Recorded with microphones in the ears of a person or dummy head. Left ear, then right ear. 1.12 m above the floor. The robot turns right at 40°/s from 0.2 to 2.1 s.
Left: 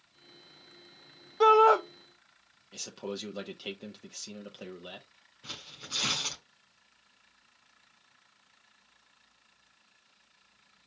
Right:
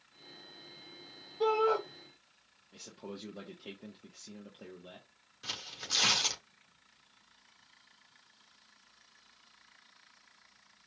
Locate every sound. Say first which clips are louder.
1.4 s a shout: left 9 dB; 60° left (ahead or behind), 0.6 m; by 1.8 s 40° left (ahead or behind), 0.6 m
2.7 s a man speaking: left 8 dB; 55° left (ahead or behind), 0.7 m
5.4 s tearing paper: right 3 dB; 70° right (ahead or behind), 2 m